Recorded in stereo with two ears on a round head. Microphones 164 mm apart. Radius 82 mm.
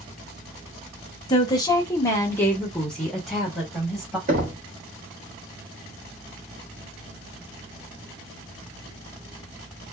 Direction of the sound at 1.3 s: 25° left (ahead or behind).